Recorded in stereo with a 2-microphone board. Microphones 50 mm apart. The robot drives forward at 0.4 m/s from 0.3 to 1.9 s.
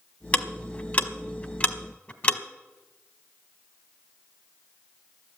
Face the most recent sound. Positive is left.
turn(degrees=30)  # may be behind; listen again after turning